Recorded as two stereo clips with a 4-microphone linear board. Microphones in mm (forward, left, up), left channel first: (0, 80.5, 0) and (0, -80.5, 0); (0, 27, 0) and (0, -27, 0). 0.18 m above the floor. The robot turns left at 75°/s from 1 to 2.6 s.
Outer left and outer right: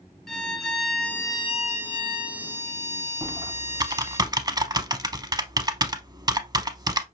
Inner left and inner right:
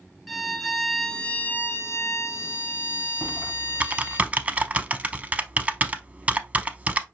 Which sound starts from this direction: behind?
A violin, at 0.3 s.